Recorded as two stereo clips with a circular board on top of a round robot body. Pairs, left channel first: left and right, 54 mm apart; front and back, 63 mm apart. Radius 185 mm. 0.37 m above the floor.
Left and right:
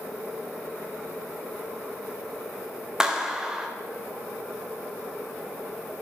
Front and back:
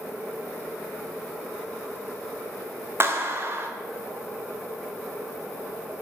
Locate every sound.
3.0 s a clap: 165° right, 1.5 m